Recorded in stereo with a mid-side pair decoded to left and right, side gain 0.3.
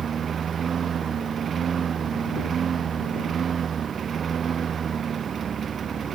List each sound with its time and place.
0.0 s a lawn mower: 65° right